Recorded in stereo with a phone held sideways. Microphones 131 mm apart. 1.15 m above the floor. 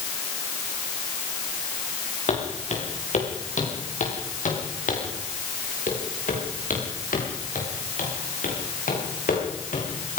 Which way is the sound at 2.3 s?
55° left (ahead or behind).